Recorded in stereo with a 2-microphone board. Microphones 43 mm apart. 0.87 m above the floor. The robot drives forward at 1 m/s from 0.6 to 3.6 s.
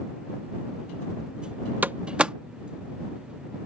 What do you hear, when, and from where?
1.8 s a door slam: 45° right (ahead or behind); by 2.4 s 25° right (ahead or behind)